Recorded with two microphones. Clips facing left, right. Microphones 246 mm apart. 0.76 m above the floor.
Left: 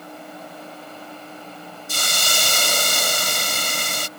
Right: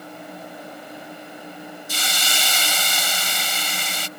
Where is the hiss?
60° left (ahead or behind).